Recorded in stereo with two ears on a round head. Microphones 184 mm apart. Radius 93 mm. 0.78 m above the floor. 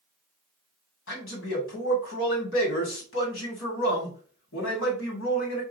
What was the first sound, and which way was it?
A man speaking, 70° left (ahead or behind).